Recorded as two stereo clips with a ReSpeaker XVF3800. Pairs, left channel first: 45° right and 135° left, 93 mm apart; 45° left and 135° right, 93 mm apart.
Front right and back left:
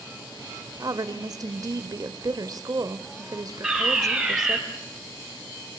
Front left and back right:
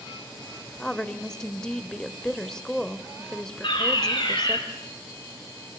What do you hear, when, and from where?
0.8 s a woman speaking: 125° left, 1.2 m
3.6 s a fire alarm: 50° left, 5 m